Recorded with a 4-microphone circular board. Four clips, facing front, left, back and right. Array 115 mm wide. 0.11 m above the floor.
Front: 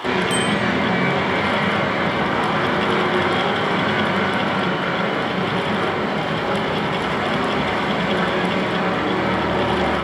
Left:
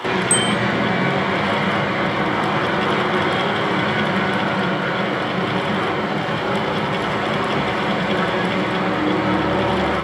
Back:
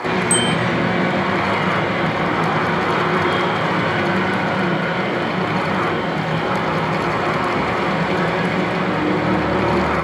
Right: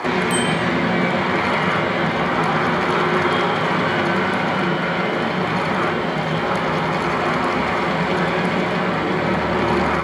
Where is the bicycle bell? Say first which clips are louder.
Right 1 dB, back 2 dB; 75° right, 3 m.